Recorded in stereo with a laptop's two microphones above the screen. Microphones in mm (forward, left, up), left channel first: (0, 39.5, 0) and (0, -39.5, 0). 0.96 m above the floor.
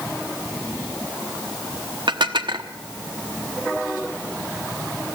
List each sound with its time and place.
2.1 s dishes clattering: 80° right, 1.1 m